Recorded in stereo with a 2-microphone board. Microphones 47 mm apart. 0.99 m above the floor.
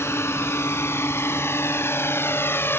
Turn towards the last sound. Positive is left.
turn(degrees=55)  # may be behind; listen again after turning